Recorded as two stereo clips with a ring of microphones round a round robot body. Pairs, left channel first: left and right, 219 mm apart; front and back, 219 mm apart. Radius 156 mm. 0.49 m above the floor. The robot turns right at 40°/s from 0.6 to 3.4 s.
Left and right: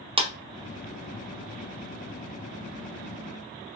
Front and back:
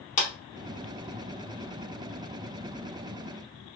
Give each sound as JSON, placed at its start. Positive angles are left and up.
{"t": 0.2, "sound": "a clap", "azimuth_deg": -35, "distance_m": 0.7}